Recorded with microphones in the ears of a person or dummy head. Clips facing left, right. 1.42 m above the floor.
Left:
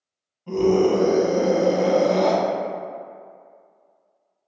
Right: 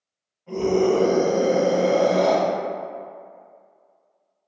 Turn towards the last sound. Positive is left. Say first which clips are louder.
# left 2 dB
turn(degrees=55)  # may be behind; listen again after turning